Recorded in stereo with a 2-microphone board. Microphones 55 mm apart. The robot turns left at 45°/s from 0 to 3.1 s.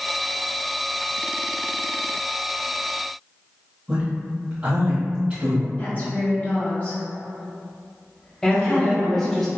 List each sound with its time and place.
3.9 s a man speaking: 25° right (ahead or behind), 0.9 m
5.8 s a woman speaking: 40° left (ahead or behind), 1.8 m
8.4 s a woman speaking: 10° left (ahead or behind), 1.1 m